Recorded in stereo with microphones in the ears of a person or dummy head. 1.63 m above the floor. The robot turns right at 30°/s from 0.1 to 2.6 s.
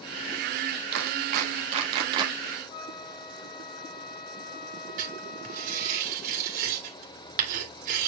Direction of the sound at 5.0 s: 45° right (ahead or behind).